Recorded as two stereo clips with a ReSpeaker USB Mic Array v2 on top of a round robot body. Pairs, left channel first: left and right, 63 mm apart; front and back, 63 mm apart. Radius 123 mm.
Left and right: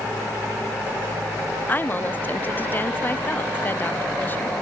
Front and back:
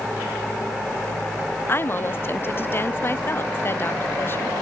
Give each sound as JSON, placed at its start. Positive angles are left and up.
{"t": 1.7, "sound": "a woman speaking", "azimuth_deg": 40, "distance_m": 0.8}